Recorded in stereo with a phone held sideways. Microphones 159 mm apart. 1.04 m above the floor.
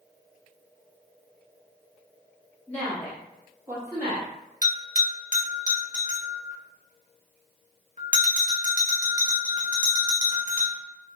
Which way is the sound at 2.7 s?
10° left (ahead or behind).